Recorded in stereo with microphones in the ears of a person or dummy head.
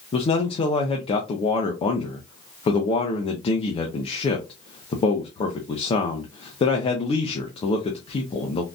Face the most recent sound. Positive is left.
turn(degrees=35)  # may be behind; listen again after turning